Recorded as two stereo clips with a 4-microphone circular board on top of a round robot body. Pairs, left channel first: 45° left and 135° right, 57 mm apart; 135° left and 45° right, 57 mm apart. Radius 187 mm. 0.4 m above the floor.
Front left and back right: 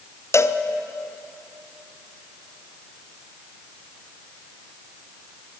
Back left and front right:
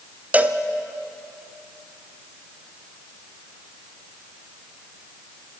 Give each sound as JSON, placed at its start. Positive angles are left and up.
{"t": 0.3, "sound": "a cowbell", "azimuth_deg": 15, "distance_m": 1.3}